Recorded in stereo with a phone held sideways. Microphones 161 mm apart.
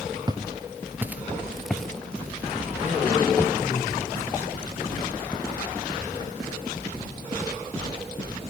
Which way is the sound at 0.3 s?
25° right (ahead or behind).